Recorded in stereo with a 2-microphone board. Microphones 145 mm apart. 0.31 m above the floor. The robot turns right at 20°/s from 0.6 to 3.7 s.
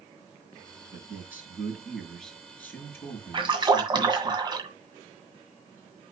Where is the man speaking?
25° right, 4 m; by 4.3 s 30° left, 4 m.